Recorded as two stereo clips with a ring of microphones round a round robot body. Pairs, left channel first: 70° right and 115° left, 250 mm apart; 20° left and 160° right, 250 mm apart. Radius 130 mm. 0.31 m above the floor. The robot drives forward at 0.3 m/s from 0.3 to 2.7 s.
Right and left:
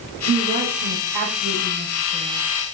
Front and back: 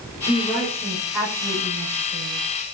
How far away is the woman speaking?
About 1.5 m.